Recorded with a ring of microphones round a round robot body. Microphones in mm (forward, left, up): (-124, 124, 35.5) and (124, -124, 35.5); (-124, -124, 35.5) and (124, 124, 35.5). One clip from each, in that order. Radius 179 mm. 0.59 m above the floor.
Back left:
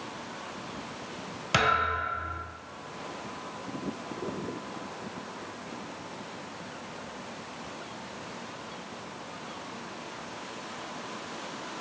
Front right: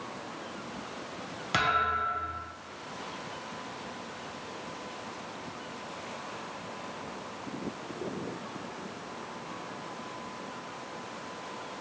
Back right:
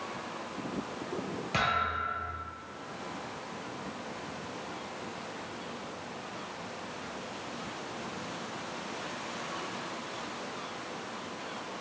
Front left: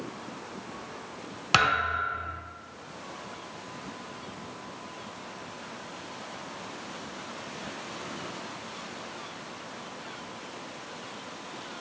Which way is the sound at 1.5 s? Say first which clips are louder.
Back left 2 dB, front left 6 dB; 50° left.